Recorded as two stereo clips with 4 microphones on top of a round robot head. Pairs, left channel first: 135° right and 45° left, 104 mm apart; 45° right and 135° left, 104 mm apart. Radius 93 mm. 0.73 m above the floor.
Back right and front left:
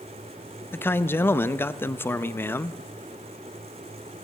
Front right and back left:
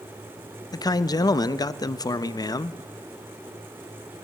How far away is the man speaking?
About 0.5 m.